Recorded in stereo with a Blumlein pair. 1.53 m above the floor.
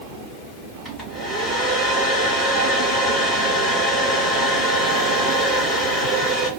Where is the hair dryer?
5° left, 3 m.